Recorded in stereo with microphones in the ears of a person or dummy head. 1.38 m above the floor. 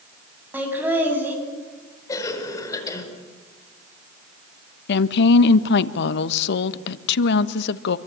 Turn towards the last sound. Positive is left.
turn(degrees=70)  # may be behind; listen again after turning